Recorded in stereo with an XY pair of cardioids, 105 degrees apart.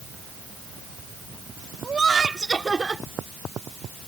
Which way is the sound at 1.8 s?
30° right.